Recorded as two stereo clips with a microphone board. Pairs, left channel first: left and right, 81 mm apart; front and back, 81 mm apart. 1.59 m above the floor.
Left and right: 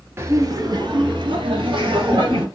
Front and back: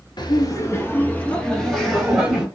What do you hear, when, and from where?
0.2 s laughter: 30° right, 0.7 m; by 2.5 s 95° right, 1.4 m